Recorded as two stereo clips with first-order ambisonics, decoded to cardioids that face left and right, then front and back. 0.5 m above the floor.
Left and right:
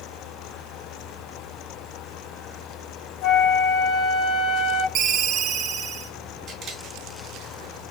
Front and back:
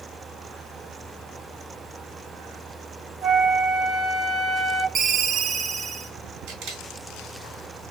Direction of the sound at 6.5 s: 145° right.